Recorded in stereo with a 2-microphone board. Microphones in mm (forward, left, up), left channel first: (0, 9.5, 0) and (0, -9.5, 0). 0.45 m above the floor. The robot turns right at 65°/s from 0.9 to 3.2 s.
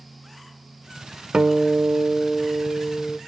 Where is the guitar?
85° right, 1.2 m; by 3.2 s 35° left, 1.2 m.